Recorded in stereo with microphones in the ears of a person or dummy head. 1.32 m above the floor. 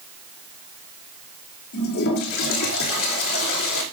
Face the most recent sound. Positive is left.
turn(degrees=85)